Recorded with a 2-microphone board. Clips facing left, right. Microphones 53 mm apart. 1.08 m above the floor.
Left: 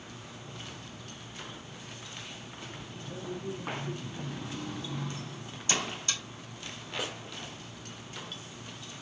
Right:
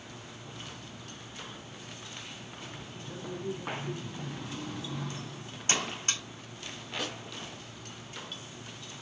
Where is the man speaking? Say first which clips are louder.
Right 1 dB; 15° right (ahead or behind), 3 m; by 5.1 s 5° right (ahead or behind), 1.7 m.